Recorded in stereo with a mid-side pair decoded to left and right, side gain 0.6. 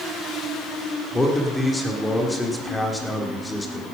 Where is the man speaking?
10° left, 3 m.